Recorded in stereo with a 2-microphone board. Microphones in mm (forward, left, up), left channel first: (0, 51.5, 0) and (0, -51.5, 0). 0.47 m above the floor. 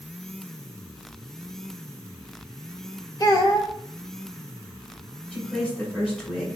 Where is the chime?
I don't hear a chime.